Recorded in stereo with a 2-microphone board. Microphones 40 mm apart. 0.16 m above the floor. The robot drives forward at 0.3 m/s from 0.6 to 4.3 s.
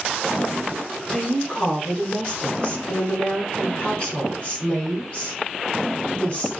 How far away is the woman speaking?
About 1.4 m.